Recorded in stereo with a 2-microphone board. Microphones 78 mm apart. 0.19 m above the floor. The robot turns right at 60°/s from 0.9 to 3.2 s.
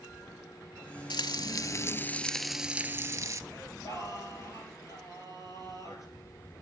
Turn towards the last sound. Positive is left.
turn(degrees=50)  # may be behind; listen again after turning